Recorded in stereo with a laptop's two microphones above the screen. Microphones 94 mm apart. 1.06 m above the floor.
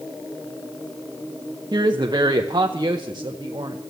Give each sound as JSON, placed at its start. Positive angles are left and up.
{"t": 1.7, "sound": "a woman speaking", "side_deg": -50, "distance_m": 0.7}